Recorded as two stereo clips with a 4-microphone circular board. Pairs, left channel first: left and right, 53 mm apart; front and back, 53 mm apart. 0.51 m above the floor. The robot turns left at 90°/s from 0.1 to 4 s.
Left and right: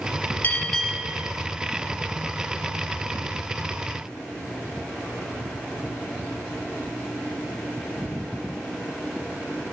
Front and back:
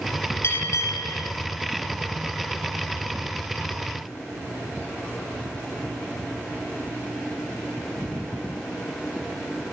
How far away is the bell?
About 2.5 m.